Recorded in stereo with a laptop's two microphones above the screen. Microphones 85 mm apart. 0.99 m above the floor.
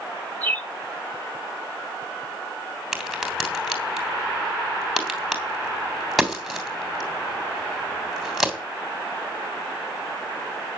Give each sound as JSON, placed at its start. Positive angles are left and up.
{"t": 0.4, "sound": "a bird", "side_deg": 20, "distance_m": 1.9}
{"t": 2.9, "sound": "a crack", "side_deg": 0, "distance_m": 3.0}